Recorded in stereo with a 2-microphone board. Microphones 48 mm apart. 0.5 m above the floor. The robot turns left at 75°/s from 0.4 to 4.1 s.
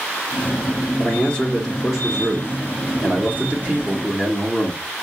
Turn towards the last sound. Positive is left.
turn(degrees=-170)